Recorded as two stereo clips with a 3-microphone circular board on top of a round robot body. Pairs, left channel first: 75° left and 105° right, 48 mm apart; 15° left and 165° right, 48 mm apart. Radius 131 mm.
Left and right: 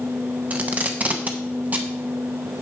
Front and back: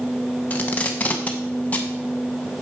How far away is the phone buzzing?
I don't hear a phone buzzing.